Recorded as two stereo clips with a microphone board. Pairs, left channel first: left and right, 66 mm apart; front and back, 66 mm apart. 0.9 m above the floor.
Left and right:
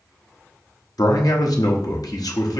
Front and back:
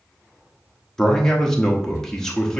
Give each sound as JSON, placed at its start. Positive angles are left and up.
{"t": 1.0, "sound": "a man speaking", "azimuth_deg": 80, "distance_m": 1.0}